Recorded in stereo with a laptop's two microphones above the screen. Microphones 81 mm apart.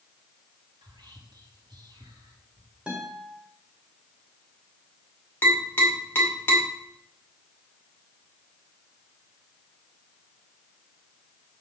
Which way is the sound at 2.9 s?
15° right (ahead or behind).